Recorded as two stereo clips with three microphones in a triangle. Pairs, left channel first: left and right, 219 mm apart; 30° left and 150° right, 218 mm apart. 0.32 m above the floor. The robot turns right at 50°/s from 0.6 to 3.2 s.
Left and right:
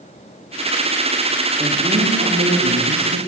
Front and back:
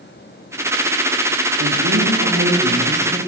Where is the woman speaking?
160° right, 7 m; by 3.2 s 80° right, 7 m.